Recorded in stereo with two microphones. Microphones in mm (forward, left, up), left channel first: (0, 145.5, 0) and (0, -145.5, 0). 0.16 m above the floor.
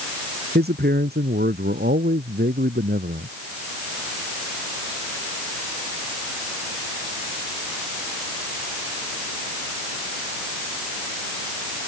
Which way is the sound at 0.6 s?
35° right (ahead or behind).